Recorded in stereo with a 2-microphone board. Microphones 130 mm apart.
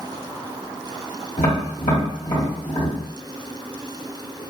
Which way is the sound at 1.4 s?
65° left (ahead or behind).